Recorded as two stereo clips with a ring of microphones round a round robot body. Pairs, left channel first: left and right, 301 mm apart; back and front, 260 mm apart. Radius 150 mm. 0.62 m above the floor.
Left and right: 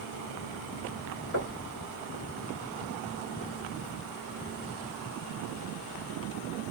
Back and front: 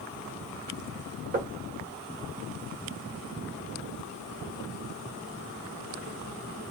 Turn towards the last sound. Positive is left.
turn(degrees=55)